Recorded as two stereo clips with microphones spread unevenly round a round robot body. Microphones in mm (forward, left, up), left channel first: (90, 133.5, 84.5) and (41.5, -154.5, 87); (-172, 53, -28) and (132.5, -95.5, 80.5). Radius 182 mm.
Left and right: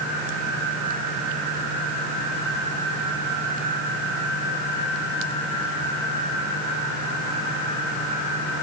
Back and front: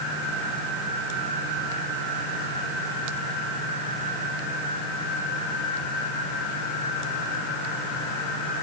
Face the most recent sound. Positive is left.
No sound to turn to.